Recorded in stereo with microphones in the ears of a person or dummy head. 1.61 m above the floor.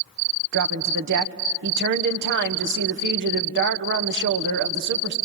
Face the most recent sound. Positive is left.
turn(degrees=-60)  # may be behind; listen again after turning